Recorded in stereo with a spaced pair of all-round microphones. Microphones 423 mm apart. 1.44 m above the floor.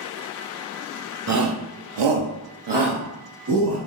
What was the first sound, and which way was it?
A shout, 40° right (ahead or behind).